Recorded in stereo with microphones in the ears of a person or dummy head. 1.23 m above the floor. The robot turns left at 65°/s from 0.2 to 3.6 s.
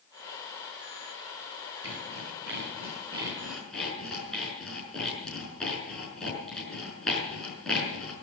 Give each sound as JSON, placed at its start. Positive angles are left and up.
{"t": 1.8, "sound": "sawing", "side_deg": -65, "distance_m": 5.5}